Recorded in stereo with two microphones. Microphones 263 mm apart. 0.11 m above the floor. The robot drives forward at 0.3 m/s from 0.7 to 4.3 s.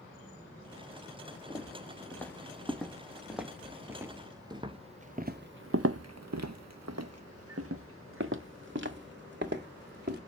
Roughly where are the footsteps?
Centre.